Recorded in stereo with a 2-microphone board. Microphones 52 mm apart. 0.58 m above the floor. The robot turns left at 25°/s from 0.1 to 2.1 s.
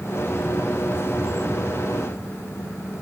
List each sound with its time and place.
Only background noise.